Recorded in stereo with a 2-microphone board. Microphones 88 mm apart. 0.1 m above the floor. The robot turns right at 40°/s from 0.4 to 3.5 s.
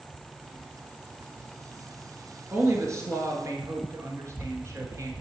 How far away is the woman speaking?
About 1.6 m.